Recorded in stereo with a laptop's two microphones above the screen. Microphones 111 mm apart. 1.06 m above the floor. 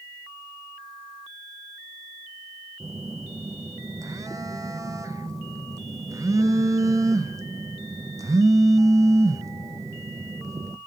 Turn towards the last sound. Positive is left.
turn(degrees=-30)  # may be behind; listen again after turning